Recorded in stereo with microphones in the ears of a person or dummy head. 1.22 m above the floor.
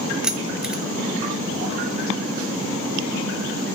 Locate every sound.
0.2 s keys jangling: centre (ahead or behind), 0.5 m